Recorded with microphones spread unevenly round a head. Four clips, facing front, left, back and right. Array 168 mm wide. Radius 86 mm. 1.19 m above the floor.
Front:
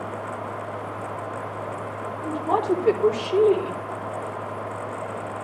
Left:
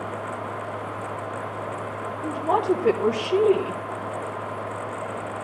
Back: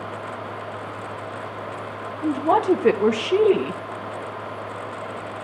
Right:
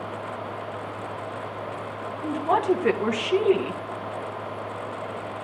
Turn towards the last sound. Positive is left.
turn(degrees=-160)